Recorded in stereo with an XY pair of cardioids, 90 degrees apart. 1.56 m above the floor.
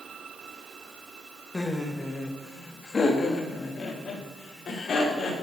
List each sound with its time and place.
1.5 s laughter: 15° left, 2.5 m; by 5.3 s 55° left, 6 m